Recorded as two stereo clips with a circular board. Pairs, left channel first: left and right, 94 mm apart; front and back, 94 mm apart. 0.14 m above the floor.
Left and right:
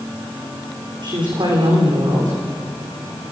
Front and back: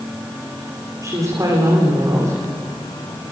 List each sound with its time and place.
1.0 s a woman speaking: 125° right, 9.5 m